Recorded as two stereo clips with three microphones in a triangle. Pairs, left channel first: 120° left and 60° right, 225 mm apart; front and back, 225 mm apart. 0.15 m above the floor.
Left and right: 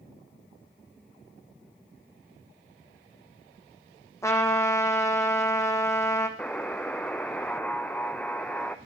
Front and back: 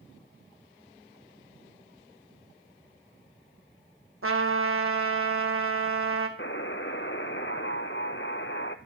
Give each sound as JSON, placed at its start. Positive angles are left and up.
{"t": 4.2, "sound": "a trumpet", "azimuth_deg": -165, "distance_m": 2.5}
{"t": 6.4, "sound": "a buzzer", "azimuth_deg": 35, "distance_m": 0.9}